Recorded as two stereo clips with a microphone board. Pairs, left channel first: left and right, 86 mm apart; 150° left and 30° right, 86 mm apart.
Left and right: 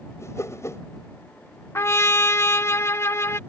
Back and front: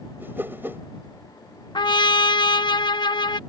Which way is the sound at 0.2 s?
35° left.